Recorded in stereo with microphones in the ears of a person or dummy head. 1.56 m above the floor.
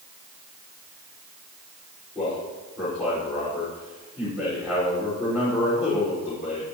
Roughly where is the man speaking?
Centre.